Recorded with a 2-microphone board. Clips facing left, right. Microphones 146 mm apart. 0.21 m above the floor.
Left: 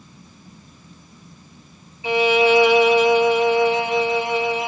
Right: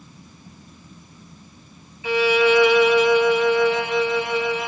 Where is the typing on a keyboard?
I don't hear typing on a keyboard.